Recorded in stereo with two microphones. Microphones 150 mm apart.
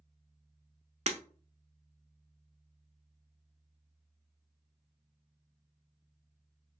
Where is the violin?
I don't hear a violin.